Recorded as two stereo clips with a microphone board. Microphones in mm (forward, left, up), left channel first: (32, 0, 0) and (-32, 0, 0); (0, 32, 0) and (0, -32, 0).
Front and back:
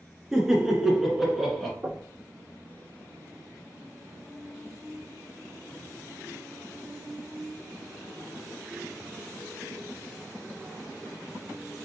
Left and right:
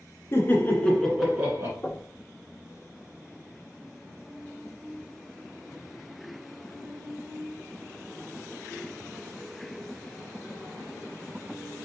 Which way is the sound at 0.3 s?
100° left.